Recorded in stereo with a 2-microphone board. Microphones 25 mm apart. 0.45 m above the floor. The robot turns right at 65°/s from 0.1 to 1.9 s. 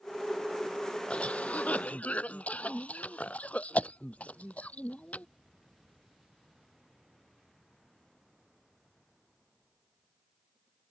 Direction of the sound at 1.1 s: 50° left (ahead or behind).